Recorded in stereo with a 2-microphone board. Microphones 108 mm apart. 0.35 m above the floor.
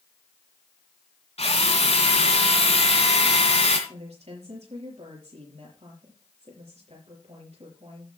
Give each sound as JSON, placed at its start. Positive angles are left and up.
{"t": 1.4, "sound": "a drill", "side_deg": 75, "distance_m": 2.5}
{"t": 3.9, "sound": "a woman speaking", "side_deg": -75, "distance_m": 7.0}